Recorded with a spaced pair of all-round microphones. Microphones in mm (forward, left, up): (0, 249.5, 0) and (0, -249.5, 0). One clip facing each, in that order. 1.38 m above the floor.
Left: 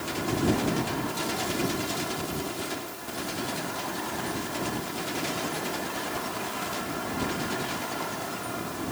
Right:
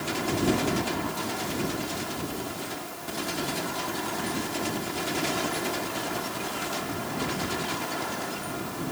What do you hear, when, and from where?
Only background noise.